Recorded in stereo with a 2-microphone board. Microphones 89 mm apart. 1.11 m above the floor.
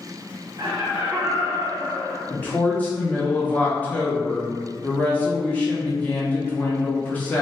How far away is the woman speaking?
About 0.7 m.